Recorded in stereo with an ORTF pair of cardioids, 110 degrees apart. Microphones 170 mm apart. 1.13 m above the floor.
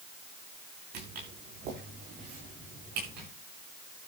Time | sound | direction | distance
0.9 | footsteps | 70° right | 6.5 m